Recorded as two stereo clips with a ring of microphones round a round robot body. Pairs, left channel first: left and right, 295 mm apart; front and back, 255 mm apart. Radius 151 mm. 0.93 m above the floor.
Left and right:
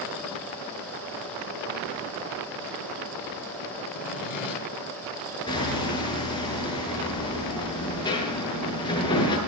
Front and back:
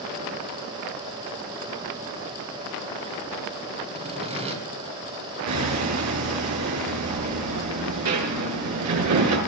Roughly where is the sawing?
Behind left.